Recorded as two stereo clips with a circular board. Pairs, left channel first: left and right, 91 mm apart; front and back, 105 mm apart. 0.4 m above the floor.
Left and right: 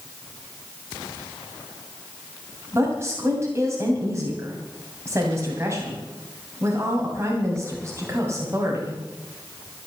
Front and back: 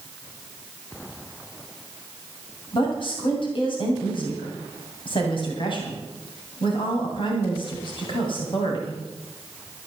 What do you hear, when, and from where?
2.7 s a woman speaking: 30° right, 2.5 m